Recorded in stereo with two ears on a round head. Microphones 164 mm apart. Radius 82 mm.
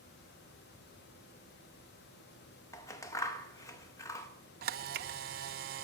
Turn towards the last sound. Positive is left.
turn(degrees=-50)  # may be behind; listen again after turning